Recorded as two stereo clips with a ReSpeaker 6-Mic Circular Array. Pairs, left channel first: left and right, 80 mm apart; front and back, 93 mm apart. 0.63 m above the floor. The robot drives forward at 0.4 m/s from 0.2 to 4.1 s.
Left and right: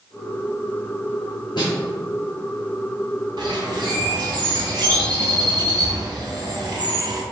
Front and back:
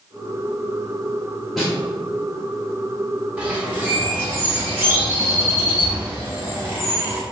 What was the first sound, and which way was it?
A snare drum, 90° left.